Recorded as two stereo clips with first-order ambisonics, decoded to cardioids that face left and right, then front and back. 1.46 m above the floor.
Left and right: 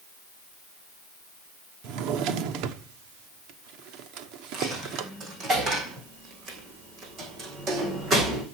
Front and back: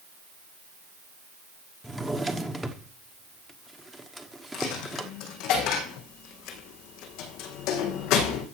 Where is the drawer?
95° right, 1.4 m.